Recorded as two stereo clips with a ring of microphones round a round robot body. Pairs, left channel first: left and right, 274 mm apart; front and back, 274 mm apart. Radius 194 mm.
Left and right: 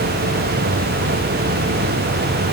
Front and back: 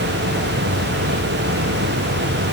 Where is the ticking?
No ticking in this recording.